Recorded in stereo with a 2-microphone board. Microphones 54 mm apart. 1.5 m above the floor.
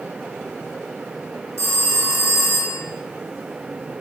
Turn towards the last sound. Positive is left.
turn(degrees=-70)  # may be behind; listen again after turning